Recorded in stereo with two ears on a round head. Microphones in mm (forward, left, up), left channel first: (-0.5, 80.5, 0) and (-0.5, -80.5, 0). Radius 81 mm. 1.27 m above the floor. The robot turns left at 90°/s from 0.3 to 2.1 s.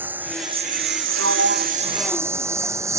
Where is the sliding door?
100° right; by 3.0 s straight behind.